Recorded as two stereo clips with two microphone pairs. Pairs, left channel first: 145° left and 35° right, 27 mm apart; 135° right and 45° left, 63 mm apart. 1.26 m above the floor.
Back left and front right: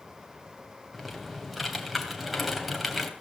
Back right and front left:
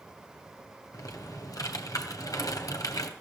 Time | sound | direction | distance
0.9 | typing on a keyboard | 125° right | 3 m